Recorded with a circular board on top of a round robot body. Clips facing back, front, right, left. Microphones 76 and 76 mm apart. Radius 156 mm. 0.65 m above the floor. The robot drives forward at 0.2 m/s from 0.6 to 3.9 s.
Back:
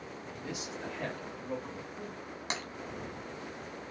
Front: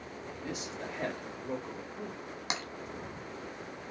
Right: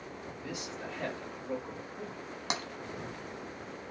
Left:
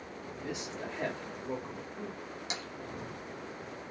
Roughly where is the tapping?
Right.